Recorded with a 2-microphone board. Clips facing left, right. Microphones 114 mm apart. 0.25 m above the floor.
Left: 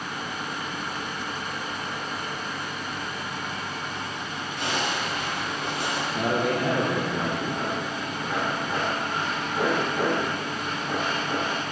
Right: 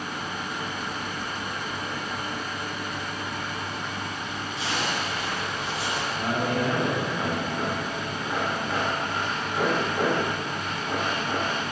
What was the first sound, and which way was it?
A zipper, 55° left (ahead or behind).